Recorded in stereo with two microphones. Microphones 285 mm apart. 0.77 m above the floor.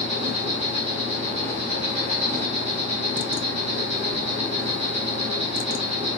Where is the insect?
20° right (ahead or behind), 0.9 m.